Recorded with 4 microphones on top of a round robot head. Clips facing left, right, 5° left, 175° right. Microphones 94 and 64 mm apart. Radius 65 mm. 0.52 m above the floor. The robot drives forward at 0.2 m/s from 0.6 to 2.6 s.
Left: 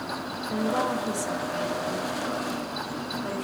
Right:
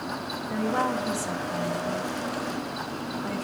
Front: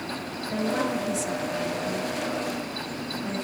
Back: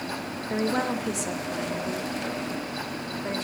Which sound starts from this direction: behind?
A woman speaking, at 0.5 s.